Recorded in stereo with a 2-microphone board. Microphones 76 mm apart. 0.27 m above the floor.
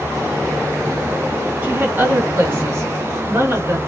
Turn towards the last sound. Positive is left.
turn(degrees=-35)  # may be behind; listen again after turning